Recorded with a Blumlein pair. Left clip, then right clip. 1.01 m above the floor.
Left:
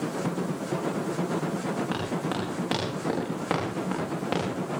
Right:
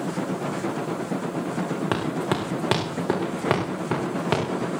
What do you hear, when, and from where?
1.9 s running footsteps: 25° right, 5 m; by 4.4 s 20° right, 6.5 m